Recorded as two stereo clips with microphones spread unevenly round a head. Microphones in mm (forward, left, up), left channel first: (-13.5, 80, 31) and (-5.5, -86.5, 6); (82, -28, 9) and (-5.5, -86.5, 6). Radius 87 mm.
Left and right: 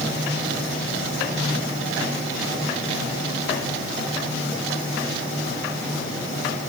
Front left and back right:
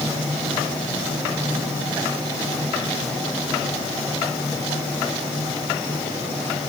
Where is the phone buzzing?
I don't hear a phone buzzing.